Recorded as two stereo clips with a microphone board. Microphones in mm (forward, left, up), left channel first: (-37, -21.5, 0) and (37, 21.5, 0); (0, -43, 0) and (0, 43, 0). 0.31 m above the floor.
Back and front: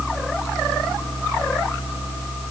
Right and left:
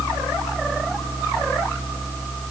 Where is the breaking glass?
I don't hear breaking glass.